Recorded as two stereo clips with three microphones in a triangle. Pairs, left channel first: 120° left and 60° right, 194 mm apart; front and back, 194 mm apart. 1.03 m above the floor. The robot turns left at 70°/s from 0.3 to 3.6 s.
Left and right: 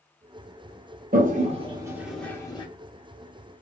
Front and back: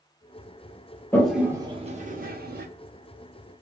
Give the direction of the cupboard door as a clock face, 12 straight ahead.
I don't hear a cupboard door.